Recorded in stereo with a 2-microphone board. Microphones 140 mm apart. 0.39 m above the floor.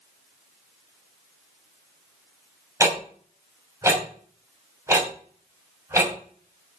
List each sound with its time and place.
2.8 s ticking: 20° right (ahead or behind), 2.5 m